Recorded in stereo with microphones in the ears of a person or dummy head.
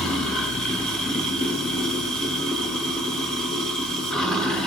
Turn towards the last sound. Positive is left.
turn(degrees=5)  # may be behind; listen again after turning